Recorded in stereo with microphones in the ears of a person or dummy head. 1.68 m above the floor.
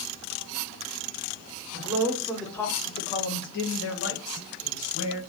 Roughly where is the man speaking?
Centre.